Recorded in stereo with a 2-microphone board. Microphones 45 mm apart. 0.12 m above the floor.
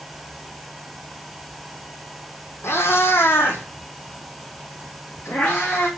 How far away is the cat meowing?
About 1.4 m.